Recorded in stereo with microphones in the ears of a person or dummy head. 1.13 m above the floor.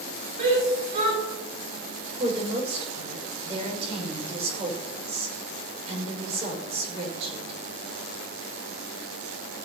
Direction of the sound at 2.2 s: 35° right (ahead or behind).